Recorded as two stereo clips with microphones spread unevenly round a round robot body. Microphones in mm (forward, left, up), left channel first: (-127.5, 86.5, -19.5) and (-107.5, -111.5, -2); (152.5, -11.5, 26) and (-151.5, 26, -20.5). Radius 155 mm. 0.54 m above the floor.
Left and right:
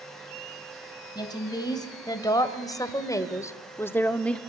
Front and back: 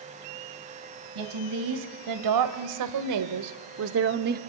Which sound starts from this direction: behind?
A woman speaking, at 1.1 s.